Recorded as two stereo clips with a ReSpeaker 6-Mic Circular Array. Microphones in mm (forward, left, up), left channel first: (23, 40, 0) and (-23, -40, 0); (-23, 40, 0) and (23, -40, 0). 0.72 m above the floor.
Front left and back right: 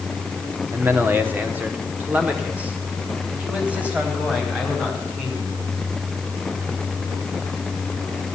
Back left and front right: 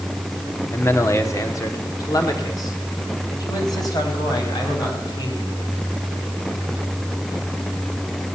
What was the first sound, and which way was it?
A man speaking, straight behind.